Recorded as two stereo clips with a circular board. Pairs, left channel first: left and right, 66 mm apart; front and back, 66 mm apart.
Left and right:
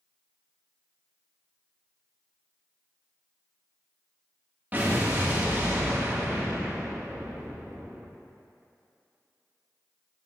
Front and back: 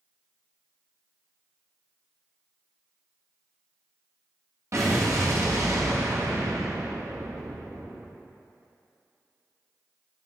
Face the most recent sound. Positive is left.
turn(degrees=-150)